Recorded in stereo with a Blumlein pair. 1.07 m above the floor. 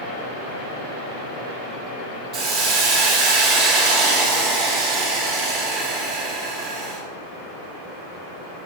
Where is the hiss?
40° right, 3 m.